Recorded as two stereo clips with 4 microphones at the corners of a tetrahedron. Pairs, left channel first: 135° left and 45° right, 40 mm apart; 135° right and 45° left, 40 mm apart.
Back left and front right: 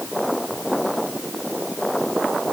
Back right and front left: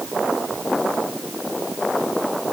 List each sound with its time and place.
Only background noise.